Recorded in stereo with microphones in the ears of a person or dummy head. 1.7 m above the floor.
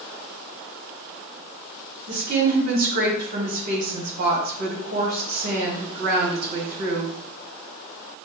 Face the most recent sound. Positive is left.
turn(degrees=-50)  # may be behind; listen again after turning